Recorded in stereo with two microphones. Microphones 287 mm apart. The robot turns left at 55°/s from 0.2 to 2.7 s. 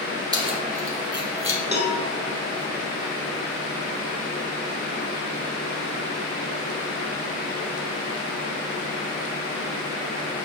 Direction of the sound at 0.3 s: 15° right (ahead or behind).